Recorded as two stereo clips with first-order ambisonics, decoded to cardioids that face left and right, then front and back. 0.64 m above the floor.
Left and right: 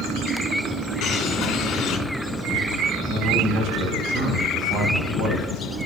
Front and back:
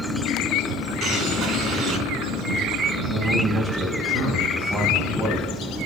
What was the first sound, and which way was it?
A bird, 130° left.